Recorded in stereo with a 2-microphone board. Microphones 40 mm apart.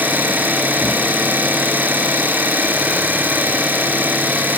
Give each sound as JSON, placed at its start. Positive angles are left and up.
{"t": 0.0, "sound": "an engine running", "side_deg": -55, "distance_m": 1.8}